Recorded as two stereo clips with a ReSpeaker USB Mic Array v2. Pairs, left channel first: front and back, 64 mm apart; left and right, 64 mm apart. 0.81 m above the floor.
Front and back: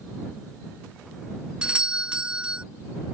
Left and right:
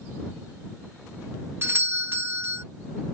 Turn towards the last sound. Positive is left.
turn(degrees=-110)